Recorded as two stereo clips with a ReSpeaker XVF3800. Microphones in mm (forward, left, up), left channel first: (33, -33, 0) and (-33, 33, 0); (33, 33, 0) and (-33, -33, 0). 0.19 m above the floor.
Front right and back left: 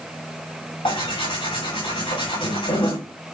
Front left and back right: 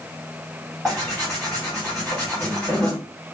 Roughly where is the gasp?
No gasp in this recording.